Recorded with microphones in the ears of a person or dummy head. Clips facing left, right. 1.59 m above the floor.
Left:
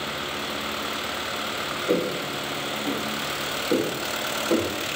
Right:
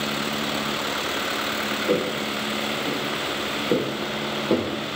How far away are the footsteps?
About 3.5 m.